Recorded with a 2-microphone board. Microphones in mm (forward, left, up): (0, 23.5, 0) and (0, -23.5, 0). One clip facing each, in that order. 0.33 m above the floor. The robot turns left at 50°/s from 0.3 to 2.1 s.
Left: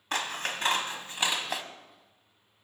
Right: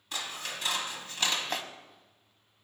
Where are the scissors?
65° left, 1.0 m; by 1.6 s straight ahead, 1.0 m.